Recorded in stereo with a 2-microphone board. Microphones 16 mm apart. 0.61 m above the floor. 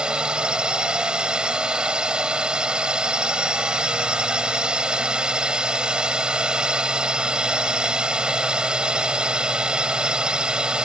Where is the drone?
65° right (ahead or behind).